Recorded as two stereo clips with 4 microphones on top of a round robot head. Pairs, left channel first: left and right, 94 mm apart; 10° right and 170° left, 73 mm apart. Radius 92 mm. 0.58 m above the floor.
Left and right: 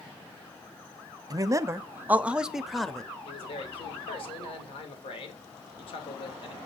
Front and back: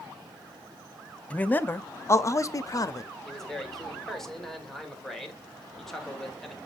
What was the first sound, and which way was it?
A man speaking, 70° right.